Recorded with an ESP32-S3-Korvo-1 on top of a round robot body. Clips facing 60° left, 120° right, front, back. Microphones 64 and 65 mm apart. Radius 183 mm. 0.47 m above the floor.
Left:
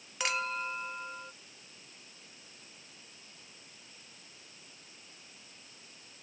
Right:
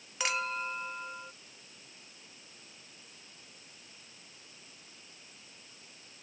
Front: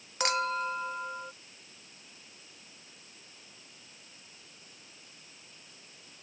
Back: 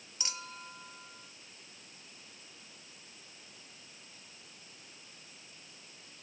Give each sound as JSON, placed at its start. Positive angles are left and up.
{"t": 0.2, "sound": "a clink", "azimuth_deg": -30}